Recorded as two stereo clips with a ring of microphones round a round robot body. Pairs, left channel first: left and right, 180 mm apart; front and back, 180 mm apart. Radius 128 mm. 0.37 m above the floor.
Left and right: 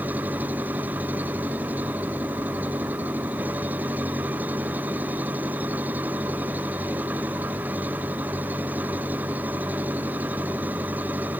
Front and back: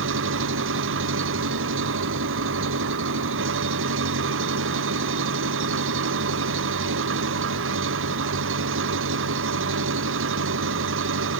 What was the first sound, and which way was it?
An engine running, 175° right.